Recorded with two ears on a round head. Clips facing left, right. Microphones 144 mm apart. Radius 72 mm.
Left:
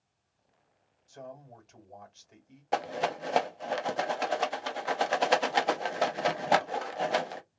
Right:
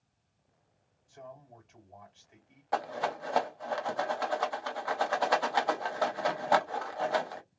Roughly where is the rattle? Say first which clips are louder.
Left 2 dB; left.